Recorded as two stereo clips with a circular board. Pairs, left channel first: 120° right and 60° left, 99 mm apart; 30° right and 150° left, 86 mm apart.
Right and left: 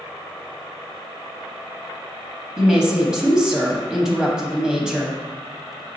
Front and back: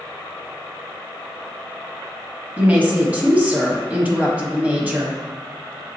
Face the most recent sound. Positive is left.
turn(degrees=125)